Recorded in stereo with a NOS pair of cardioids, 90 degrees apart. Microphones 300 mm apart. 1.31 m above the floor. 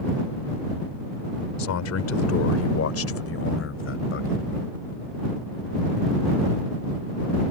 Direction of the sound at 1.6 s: 65° left.